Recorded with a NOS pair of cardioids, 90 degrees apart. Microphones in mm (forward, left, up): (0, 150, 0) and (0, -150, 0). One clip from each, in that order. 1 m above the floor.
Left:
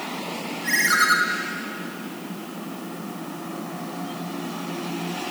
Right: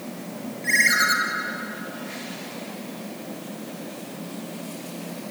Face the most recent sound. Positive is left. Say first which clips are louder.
# even
turn(degrees=5)